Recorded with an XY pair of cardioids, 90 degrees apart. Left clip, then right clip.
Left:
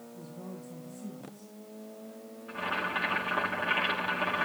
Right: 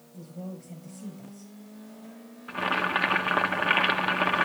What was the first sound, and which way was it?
A woman speaking, 65° right.